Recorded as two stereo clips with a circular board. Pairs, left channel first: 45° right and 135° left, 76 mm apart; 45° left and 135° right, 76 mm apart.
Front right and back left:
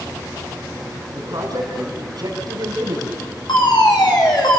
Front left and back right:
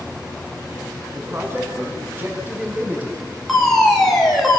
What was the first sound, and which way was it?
A man speaking, 170° left.